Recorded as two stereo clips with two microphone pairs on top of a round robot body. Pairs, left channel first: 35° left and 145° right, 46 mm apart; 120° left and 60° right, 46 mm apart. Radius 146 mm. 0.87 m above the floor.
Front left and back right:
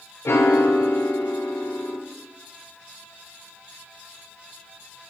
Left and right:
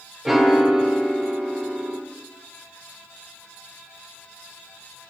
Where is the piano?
15° left, 0.6 m.